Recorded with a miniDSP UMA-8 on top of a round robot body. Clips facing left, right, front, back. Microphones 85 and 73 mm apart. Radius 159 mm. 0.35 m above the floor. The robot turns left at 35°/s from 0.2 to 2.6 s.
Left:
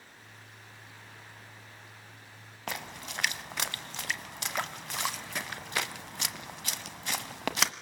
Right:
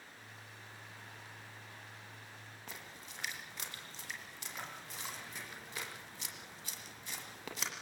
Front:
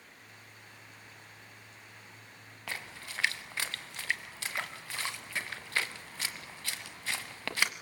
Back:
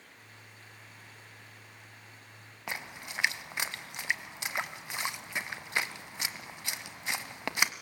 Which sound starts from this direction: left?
A splash, at 2.7 s.